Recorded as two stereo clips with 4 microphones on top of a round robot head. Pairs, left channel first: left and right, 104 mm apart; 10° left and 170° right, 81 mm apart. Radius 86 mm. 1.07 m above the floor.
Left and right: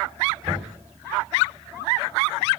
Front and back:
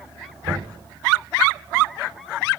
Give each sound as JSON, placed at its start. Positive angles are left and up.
{"t": 0.4, "sound": "knocking", "azimuth_deg": -140, "distance_m": 6.5}